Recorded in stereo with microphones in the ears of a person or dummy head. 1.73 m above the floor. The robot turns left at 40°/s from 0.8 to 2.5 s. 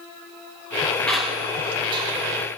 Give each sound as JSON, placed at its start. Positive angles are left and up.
{"t": 1.1, "sound": "a squeak", "side_deg": 5, "distance_m": 1.1}